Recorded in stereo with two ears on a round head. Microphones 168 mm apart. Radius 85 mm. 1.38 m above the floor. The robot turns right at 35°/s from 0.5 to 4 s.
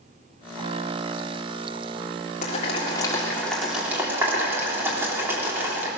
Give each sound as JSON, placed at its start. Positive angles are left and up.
{"t": 2.4, "sound": "boiling", "side_deg": 45, "distance_m": 4.0}